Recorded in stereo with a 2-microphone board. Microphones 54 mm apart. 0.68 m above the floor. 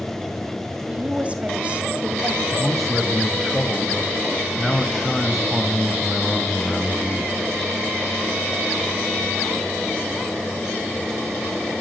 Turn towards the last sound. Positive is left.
turn(degrees=5)  # may be behind; listen again after turning